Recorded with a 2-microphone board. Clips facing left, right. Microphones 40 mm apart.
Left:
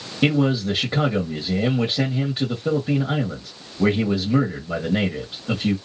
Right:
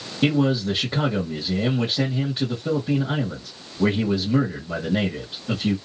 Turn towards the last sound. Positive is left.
turn(degrees=20)  # may be behind; listen again after turning